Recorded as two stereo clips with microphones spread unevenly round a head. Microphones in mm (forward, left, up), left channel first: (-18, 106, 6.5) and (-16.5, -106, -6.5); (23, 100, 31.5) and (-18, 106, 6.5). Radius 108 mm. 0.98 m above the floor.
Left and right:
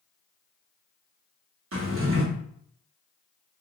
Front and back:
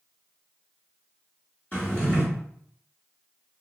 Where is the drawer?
60° right, 0.9 m.